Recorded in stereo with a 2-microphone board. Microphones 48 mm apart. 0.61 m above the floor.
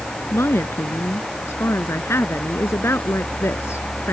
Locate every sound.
0.3 s a woman speaking: 65° left (ahead or behind)